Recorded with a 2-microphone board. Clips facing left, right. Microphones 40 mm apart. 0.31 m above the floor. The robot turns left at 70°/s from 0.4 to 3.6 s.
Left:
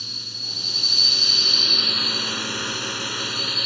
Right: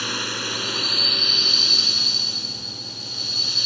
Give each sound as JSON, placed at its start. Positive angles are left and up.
{"t": 0.0, "sound": "a drone", "azimuth_deg": -105}